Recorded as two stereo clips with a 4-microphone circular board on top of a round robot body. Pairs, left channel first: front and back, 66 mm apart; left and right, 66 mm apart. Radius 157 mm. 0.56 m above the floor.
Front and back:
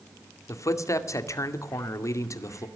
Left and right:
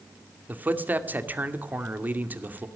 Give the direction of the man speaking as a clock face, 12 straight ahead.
1 o'clock.